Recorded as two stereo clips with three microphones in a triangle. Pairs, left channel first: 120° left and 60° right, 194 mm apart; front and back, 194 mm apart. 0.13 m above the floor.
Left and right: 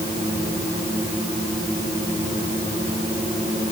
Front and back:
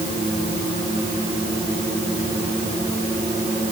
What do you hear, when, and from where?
Only background noise.